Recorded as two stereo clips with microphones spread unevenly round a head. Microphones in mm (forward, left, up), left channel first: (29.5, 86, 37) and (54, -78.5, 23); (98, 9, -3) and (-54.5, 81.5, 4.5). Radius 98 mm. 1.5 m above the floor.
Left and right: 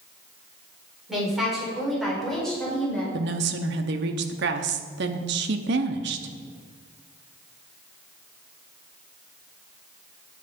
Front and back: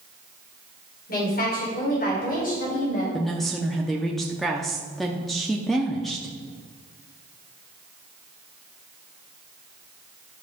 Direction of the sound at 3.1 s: 115° right.